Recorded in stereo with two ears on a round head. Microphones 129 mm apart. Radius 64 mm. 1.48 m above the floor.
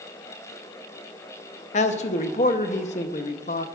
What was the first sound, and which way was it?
A man speaking, 50° left (ahead or behind).